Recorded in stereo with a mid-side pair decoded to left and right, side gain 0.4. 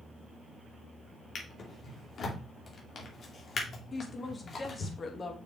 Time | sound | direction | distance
1.4 | a drawer | 55° left | 2.5 m
3.9 | a woman speaking | 40° left | 2 m